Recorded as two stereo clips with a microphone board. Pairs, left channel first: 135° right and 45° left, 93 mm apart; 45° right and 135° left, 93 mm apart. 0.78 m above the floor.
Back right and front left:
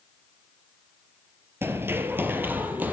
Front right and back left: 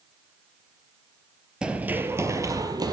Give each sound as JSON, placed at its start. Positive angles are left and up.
{"t": 1.6, "sound": "running footsteps", "azimuth_deg": 65, "distance_m": 0.8}